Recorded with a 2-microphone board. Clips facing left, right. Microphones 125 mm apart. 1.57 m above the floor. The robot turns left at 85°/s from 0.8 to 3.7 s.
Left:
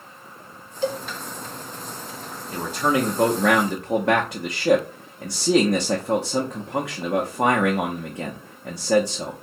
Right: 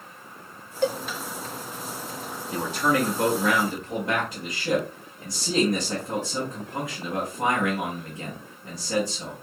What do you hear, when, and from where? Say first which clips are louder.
0.8 s a cowbell: right 1 dB; 60° right (ahead or behind), 0.9 m; by 1.0 s 70° right (ahead or behind), 0.9 m
2.5 s a man speaking: left 2 dB; 170° right, 0.7 m; by 9.3 s 85° left, 0.7 m